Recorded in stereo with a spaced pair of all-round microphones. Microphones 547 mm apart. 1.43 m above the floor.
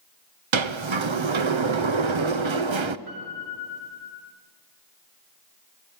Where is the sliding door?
55° right (ahead or behind), 0.8 m.